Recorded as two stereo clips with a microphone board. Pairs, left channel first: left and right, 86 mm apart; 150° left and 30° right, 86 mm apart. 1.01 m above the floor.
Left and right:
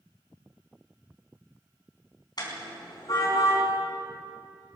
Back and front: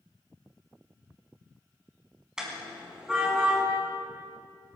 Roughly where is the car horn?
Ahead left.